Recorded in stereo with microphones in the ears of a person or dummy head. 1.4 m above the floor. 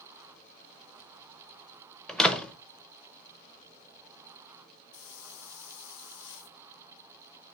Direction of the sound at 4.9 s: 65° left (ahead or behind).